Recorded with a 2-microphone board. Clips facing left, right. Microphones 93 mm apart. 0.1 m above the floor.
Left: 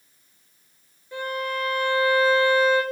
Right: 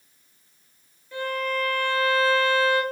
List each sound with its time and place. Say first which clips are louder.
1.1 s a violin: right 1 dB; 20° left (ahead or behind), 1.0 m